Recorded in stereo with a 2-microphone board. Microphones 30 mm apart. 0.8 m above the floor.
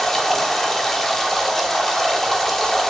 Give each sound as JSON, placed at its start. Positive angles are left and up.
{"t": 0.0, "sound": "running water", "side_deg": 10, "distance_m": 1.2}